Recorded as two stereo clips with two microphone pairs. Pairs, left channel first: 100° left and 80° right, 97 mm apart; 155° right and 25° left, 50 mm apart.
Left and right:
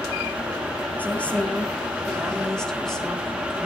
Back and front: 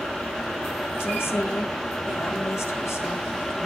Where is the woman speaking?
175° left, 3 m; by 3.7 s 170° right, 5 m.